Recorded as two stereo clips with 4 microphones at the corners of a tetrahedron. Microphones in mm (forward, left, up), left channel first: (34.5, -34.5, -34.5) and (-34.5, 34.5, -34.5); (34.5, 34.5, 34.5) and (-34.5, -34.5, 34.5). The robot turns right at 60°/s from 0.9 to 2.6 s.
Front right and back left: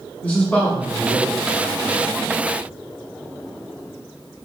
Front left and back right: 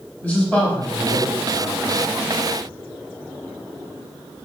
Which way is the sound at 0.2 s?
Straight ahead.